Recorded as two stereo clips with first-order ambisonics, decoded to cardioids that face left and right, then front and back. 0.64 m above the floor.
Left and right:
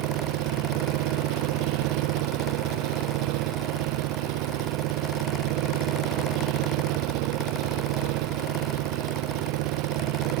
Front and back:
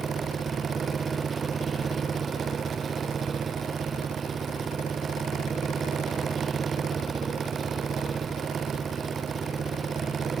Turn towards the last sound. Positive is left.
turn(degrees=-110)